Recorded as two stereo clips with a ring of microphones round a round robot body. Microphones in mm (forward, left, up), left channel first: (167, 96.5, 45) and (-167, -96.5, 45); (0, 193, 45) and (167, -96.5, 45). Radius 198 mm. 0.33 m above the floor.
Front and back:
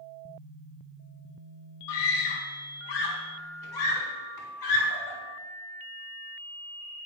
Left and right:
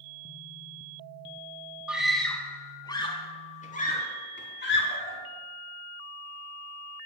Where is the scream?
25° left, 3 m; by 5.2 s 70° left, 4 m.